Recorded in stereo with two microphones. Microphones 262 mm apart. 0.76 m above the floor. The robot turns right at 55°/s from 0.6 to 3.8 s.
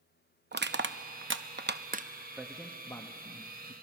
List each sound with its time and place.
0.5 s crushing: 40° right (ahead or behind), 0.7 m; by 2.1 s 30° right (ahead or behind), 0.7 m
2.4 s a man speaking: 5° right (ahead or behind), 1.1 m; by 3.7 s 30° left (ahead or behind), 1.1 m